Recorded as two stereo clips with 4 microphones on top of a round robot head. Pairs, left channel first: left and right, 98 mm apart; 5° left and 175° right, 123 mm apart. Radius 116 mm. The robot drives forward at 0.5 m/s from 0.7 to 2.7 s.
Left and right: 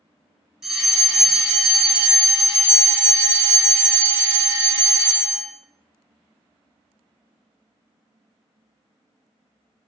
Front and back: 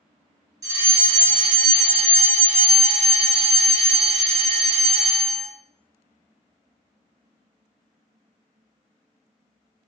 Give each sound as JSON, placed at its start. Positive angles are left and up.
{"t": 0.6, "sound": "a fire alarm", "azimuth_deg": -170, "distance_m": 1.6}